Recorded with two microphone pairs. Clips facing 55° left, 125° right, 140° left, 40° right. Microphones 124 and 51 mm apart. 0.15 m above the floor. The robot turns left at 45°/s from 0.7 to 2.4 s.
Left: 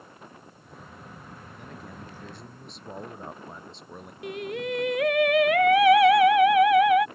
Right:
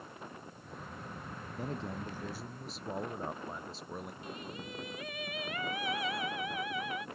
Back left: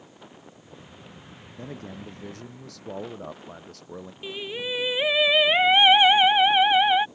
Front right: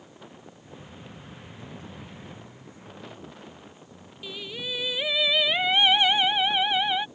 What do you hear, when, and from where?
1.6 s a man speaking: 175° right; by 4.1 s 145° left
4.2 s singing: 75° left